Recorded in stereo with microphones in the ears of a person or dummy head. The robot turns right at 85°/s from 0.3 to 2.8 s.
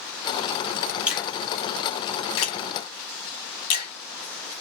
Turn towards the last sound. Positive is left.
turn(degrees=35)  # may be behind; listen again after turning